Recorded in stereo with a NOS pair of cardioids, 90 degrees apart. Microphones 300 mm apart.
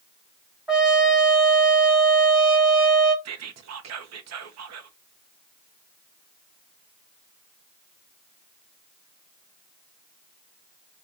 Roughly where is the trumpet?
Ahead.